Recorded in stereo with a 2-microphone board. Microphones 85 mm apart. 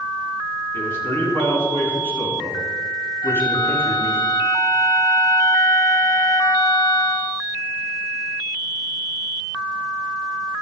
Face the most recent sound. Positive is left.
turn(degrees=60)  # may be behind; listen again after turning